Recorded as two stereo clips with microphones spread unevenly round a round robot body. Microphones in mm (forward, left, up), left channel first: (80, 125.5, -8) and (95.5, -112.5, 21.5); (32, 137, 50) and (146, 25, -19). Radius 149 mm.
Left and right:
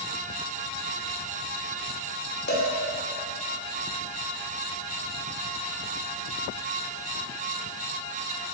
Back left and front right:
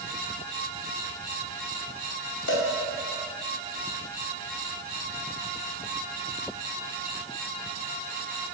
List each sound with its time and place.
2.5 s a cowbell: 155° left, 2 m